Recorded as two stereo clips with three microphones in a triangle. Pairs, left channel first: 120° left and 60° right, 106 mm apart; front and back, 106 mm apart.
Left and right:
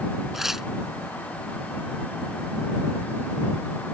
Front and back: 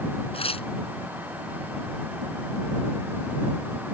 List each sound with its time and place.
0.3 s tearing paper: 25° left